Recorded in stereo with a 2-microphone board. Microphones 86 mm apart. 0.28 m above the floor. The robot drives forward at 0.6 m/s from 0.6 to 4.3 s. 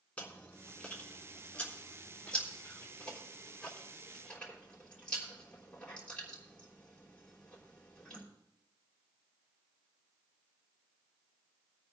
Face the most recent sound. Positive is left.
turn(degrees=5)  # may be behind; listen again after turning